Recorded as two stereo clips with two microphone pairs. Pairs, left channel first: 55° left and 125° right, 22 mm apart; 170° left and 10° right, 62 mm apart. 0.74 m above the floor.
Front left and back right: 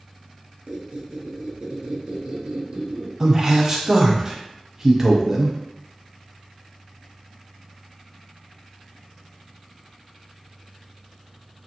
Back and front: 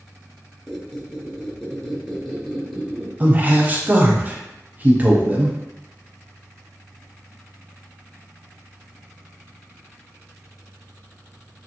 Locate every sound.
0.7 s a squeak: 110° right, 0.7 m
3.2 s a man speaking: 65° right, 0.6 m